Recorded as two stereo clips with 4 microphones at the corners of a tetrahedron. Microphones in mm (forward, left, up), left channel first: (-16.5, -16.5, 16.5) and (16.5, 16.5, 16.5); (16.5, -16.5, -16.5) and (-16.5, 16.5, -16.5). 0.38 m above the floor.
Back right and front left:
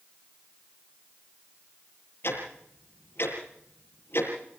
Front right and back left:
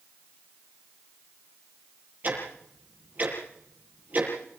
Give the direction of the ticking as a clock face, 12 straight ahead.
6 o'clock.